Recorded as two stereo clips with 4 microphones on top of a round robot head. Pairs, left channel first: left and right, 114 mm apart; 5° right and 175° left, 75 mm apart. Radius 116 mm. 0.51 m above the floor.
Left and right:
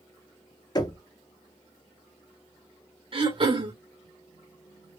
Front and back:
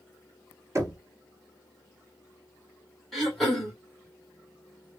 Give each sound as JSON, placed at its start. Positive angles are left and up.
{"t": 0.8, "sound": "knocking", "azimuth_deg": 135, "distance_m": 1.2}
{"t": 3.1, "sound": "throat clearing", "azimuth_deg": -90, "distance_m": 1.7}